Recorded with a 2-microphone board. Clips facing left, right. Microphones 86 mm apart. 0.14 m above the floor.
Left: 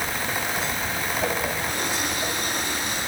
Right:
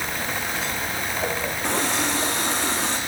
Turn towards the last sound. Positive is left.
turn(degrees=-75)  # may be behind; listen again after turning